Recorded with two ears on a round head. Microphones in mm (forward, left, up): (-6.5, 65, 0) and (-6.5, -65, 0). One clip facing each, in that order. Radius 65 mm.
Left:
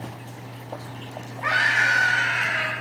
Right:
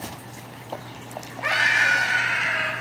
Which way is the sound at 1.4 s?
25° right (ahead or behind).